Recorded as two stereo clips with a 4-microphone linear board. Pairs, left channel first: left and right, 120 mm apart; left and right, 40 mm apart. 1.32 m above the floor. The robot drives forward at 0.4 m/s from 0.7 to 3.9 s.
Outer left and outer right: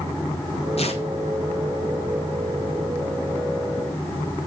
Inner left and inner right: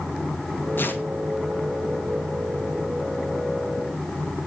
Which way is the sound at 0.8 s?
60° left (ahead or behind).